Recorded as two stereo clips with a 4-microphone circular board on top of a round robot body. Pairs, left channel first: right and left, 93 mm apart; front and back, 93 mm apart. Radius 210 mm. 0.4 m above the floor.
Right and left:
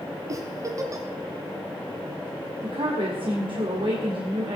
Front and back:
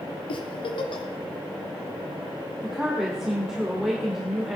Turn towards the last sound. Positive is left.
turn(degrees=95)